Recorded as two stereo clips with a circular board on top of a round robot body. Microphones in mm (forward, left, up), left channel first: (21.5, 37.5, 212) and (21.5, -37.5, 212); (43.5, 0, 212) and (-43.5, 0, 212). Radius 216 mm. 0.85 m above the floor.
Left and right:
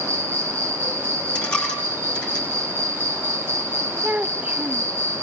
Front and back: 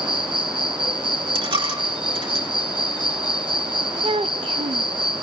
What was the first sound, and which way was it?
An insect, 155° right.